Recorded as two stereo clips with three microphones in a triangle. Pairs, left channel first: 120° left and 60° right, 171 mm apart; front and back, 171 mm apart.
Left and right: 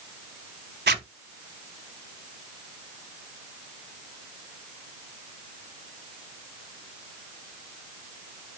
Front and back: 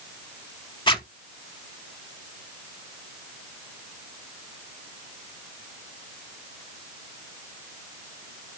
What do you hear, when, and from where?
0.9 s a zipper: 60° right, 0.8 m